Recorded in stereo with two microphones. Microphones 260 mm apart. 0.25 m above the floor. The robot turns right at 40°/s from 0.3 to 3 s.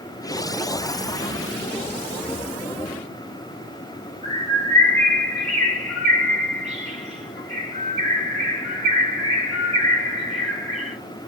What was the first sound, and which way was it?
A bird, 25° right (ahead or behind).